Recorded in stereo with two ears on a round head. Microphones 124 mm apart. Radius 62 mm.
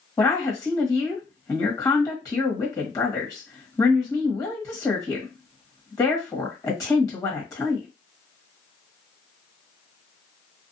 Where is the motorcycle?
I don't hear a motorcycle.